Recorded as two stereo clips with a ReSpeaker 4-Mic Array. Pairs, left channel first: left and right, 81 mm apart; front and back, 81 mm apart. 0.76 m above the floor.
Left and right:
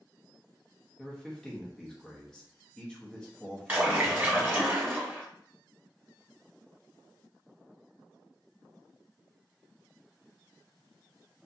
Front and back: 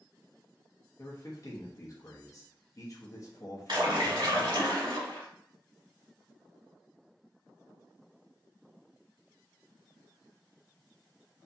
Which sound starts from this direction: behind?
A splash, at 3.7 s.